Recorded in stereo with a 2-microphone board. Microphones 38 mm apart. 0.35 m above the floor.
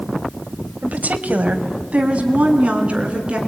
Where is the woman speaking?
45° right (ahead or behind), 1.7 m; by 3.4 s 30° right (ahead or behind), 5 m.